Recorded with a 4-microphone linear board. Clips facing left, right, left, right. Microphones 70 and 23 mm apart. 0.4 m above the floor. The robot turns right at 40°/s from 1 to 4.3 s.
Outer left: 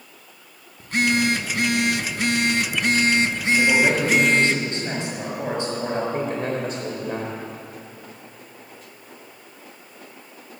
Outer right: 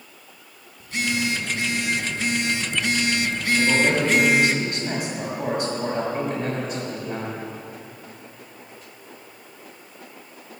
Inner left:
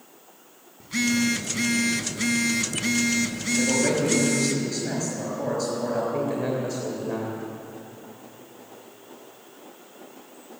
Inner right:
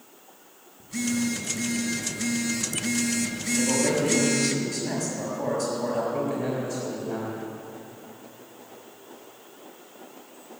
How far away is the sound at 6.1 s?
About 1.8 m.